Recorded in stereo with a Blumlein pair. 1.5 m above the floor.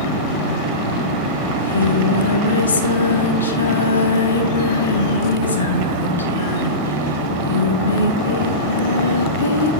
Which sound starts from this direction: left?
Singing, at 1.5 s.